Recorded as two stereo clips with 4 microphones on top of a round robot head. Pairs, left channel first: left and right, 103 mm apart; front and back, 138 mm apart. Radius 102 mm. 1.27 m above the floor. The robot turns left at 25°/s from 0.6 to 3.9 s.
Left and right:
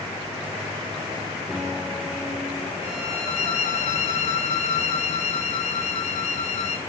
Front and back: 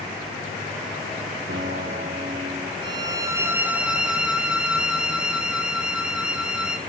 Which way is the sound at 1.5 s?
165° right.